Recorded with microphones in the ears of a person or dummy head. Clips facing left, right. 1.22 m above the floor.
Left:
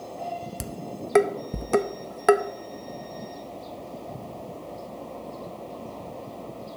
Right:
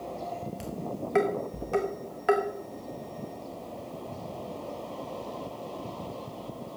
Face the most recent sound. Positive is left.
turn(degrees=60)  # may be behind; listen again after turning